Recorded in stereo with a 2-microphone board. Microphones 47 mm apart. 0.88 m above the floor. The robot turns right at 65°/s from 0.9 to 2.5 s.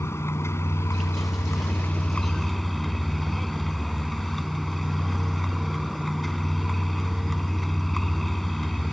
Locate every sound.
0.0 s a vehicle: 75° left; by 8.9 s 175° left